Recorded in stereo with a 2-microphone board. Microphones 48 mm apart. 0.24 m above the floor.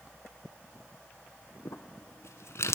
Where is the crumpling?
70° left (ahead or behind), 0.8 m.